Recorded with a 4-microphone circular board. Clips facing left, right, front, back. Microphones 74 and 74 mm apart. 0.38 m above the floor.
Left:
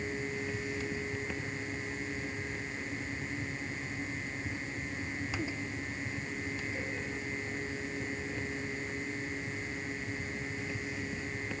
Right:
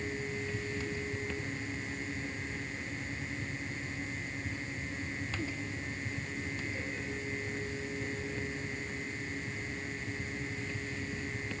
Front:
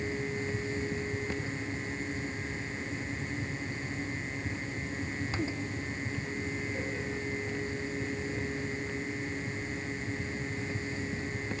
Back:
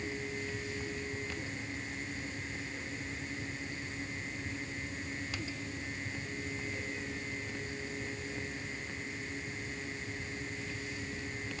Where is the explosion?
No explosion in this recording.